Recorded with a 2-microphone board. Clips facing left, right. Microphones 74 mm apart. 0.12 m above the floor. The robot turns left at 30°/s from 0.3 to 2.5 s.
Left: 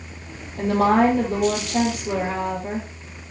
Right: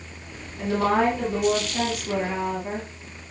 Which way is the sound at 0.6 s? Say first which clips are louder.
Left 4 dB; 110° left.